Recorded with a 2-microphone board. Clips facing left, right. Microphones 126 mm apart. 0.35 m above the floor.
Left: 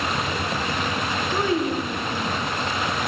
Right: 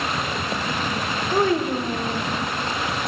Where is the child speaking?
45° right (ahead or behind), 0.9 m.